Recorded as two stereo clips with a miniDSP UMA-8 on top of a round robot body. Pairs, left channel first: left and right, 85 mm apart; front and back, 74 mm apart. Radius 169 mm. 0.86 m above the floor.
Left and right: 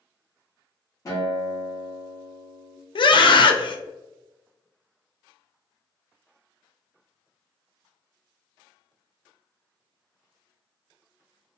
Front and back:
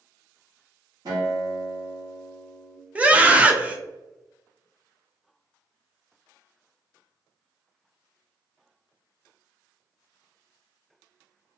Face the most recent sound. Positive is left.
turn(degrees=110)